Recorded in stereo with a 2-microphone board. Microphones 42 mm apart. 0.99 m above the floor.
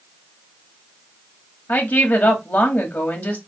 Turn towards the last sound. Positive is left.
turn(degrees=50)  # may be behind; listen again after turning